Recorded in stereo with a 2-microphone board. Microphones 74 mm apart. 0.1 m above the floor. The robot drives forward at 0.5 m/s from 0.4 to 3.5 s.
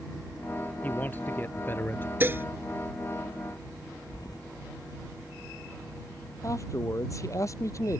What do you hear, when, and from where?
0.8 s a man speaking: 25° left (ahead or behind); by 2.1 s 30° left (ahead or behind)
2.2 s dishes clattering: 30° right (ahead or behind)
4.1 s keys jangling: 60° left (ahead or behind)
6.4 s a man speaking: 45° left (ahead or behind)